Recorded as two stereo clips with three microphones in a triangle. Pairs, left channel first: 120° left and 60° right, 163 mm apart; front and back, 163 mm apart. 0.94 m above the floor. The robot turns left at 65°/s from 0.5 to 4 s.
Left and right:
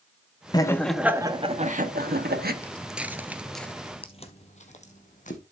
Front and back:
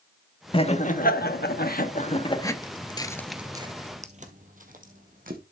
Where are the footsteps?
50° left, 1.2 m; by 5.4 s 155° left, 3 m.